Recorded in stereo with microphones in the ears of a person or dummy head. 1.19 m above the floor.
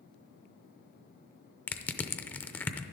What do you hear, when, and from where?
1.7 s crushing: 10° left (ahead or behind), 0.5 m